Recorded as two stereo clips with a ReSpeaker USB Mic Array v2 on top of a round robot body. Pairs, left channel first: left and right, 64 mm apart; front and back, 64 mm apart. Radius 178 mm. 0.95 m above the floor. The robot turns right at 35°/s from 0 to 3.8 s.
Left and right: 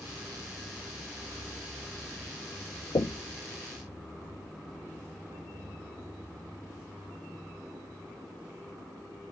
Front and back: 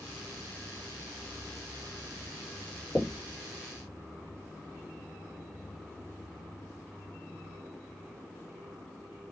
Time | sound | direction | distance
3.0 | knocking | 85° left | 0.8 m